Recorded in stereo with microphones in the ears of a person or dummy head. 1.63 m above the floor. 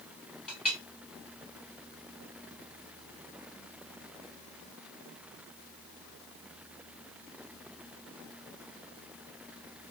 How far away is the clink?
About 2 m.